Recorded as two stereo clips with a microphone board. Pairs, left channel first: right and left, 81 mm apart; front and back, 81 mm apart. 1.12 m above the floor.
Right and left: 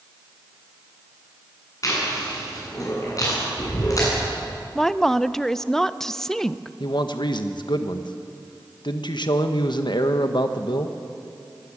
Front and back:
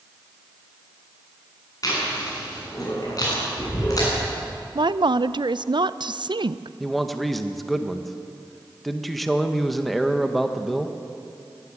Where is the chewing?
45° right, 8.5 m.